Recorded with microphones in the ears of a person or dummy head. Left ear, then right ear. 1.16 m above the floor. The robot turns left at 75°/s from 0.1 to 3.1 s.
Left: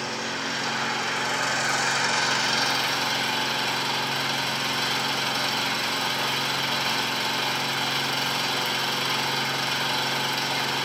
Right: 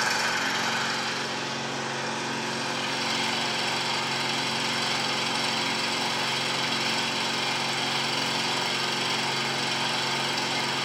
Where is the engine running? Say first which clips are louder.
Right 4 dB; 125° right, 2.5 m; by 10.9 s 10° left, 2.5 m.